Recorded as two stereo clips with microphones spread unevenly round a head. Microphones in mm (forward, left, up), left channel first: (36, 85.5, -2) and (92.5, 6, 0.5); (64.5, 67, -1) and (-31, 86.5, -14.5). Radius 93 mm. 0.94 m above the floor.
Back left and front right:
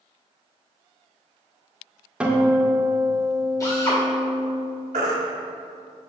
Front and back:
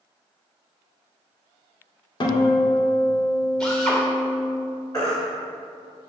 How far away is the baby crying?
About 1.5 m.